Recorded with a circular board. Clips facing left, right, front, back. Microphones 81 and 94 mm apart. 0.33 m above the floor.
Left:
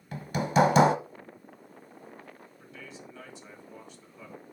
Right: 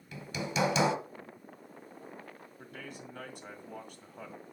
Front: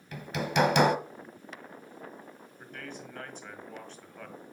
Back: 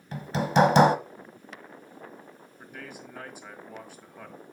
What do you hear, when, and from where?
0.1 s hammering: 125° left, 0.8 m
2.6 s a man speaking: 100° right, 1.7 m